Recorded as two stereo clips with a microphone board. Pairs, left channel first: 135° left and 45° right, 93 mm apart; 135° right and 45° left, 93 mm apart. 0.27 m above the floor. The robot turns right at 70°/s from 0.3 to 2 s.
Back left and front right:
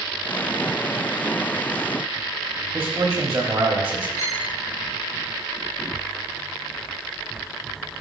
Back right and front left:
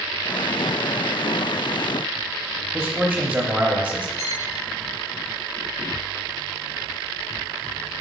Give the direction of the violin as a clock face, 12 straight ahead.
6 o'clock.